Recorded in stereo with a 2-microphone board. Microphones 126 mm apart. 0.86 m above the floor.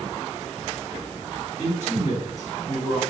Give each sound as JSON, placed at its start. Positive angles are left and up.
{"t": 1.6, "sound": "a man speaking", "side_deg": 65, "distance_m": 2.0}